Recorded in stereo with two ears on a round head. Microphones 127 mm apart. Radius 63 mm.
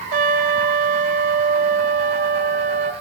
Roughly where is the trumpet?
Right.